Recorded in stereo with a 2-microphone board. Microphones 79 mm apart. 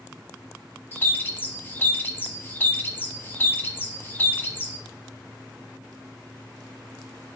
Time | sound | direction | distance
0.9 | a bird | 25° left (ahead or behind) | 0.7 m